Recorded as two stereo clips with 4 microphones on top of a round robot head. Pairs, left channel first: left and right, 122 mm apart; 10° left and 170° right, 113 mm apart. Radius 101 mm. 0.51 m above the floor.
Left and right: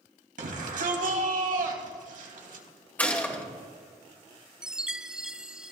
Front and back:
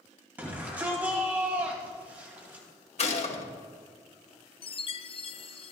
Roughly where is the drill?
I don't hear a drill.